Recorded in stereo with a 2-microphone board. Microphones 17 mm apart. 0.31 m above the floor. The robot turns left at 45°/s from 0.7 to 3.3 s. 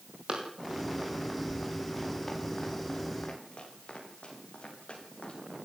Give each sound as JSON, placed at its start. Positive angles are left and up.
{"t": 0.3, "sound": "running footsteps", "side_deg": -60, "distance_m": 9.5}